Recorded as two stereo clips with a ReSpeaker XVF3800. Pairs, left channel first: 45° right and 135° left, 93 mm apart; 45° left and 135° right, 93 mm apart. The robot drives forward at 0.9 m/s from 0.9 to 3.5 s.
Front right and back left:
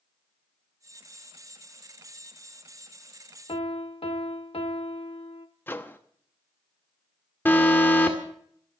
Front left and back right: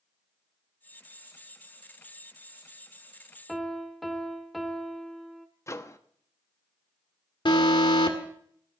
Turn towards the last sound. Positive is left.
turn(degrees=20)